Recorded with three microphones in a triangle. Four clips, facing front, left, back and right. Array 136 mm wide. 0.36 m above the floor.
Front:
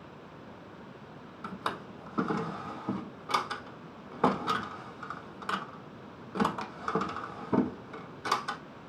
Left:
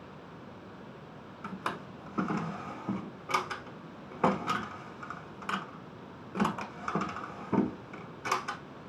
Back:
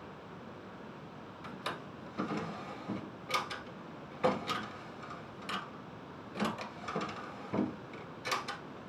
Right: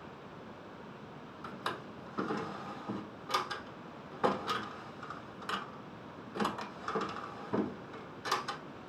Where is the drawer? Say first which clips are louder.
Left 3 dB, front 6 dB; 35° left, 0.7 m.